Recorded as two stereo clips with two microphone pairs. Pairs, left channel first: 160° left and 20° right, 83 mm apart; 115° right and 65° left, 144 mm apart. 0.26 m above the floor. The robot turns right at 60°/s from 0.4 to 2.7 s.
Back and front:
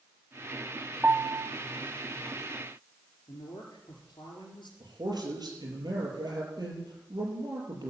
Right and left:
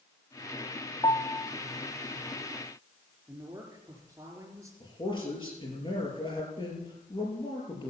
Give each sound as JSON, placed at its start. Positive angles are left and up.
{"t": 1.0, "sound": "a piano", "azimuth_deg": -75, "distance_m": 0.7}
{"t": 3.3, "sound": "a woman speaking", "azimuth_deg": 135, "distance_m": 4.5}
{"t": 4.8, "sound": "a man speaking", "azimuth_deg": -60, "distance_m": 6.5}